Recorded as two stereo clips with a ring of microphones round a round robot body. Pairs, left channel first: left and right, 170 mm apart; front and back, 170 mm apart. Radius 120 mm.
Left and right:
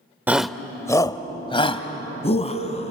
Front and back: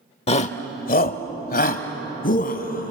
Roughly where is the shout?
Ahead.